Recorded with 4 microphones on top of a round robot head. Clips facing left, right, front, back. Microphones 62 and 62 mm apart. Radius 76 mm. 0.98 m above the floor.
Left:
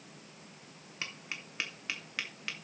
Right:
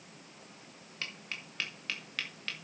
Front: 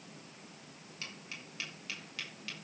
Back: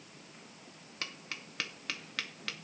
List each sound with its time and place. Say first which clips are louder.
1.0 s tapping: even, back 4 dB; 165° left, 2 m